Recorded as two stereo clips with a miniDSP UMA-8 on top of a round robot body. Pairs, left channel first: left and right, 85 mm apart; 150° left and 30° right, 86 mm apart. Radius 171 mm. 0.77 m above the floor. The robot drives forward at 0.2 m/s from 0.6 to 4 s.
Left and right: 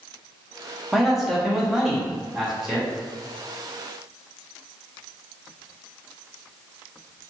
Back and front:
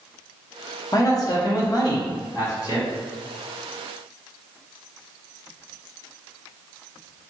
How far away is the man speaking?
About 1.0 m.